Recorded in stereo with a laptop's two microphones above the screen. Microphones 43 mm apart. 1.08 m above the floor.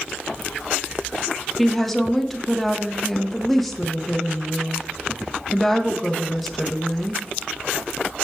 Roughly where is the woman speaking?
Centre.